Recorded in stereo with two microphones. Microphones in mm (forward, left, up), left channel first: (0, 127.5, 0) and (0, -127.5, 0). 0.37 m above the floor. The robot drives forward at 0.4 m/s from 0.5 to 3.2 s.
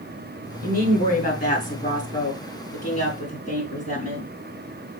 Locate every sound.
0.6 s a woman speaking: 35° left (ahead or behind), 4 m; by 4.3 s 30° left (ahead or behind), 4.5 m